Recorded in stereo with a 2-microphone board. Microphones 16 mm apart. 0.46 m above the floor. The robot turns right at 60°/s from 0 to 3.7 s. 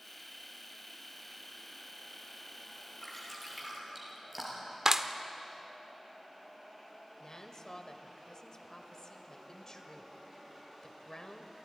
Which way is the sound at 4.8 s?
35° right (ahead or behind).